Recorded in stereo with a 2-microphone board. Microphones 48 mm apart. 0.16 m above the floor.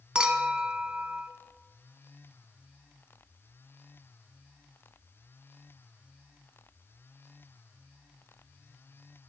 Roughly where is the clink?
Centre.